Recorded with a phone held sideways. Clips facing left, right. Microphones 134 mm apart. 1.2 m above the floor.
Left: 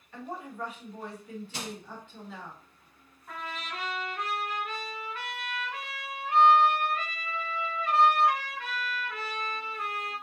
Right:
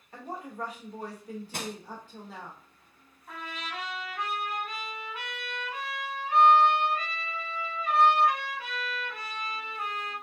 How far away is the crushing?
About 0.6 m.